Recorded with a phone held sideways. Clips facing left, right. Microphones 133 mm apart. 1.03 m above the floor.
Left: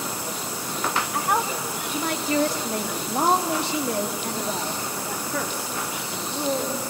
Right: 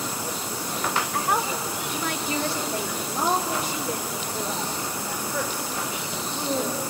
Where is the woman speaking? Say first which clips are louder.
Left 2 dB; 10° left (ahead or behind), 1.6 m; by 6.8 s 70° left (ahead or behind), 2.5 m.